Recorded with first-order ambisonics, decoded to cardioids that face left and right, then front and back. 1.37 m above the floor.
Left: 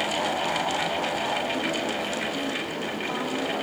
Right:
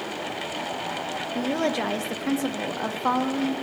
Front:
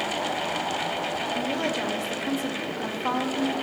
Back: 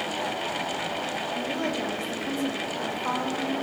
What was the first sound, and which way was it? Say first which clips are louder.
A woman speaking: right 1 dB, front 2 dB; 80° right.